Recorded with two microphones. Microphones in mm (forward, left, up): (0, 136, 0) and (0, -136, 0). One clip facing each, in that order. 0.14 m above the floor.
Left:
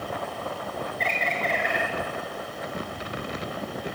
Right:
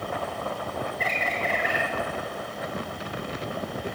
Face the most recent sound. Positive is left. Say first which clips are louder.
# even
turn(degrees=-5)  # may be behind; listen again after turning